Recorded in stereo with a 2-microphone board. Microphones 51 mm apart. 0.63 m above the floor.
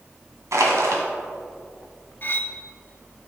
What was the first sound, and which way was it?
Crushing, 80° right.